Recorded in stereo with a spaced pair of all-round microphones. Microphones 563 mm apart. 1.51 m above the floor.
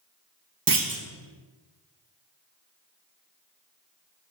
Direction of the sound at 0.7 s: 40° right (ahead or behind).